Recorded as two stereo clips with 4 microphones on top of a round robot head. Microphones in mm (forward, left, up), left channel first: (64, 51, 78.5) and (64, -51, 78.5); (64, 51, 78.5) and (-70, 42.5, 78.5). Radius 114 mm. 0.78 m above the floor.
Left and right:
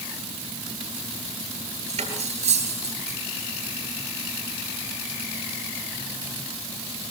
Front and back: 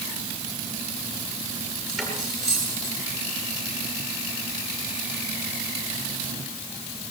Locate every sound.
1.9 s cutlery clinking: 90° right, 8.5 m